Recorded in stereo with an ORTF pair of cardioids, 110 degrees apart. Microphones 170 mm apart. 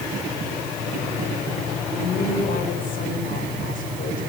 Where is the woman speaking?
55° left, 8.5 m.